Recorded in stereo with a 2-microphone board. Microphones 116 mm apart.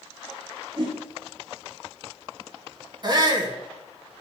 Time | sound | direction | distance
0.8 | a whoosh | 45° right (ahead or behind) | 2 m
3.0 | a shout | 40° right (ahead or behind) | 1.3 m